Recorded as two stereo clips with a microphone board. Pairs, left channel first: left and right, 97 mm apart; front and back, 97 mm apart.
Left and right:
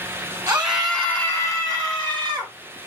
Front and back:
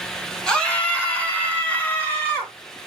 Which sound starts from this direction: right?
A scream, at 0.5 s.